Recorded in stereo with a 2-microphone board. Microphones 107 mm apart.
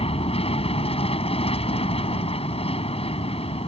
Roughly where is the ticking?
I don't hear ticking.